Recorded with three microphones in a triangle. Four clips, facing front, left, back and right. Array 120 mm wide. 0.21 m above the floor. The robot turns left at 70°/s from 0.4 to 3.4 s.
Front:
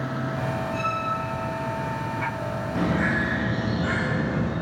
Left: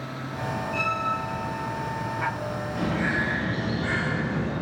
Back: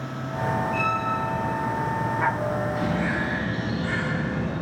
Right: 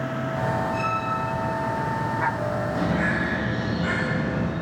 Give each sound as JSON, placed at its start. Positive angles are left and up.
{"t": 0.7, "sound": "a violin", "azimuth_deg": 115, "distance_m": 4.5}
{"t": 2.8, "sound": "a bird", "azimuth_deg": -10, "distance_m": 10.0}